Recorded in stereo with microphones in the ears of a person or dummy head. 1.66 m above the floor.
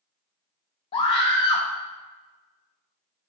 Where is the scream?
30° left (ahead or behind), 1.0 m.